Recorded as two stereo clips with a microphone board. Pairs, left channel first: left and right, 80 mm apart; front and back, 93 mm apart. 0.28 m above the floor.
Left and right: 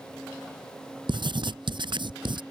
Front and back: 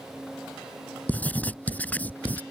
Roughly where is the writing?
Right.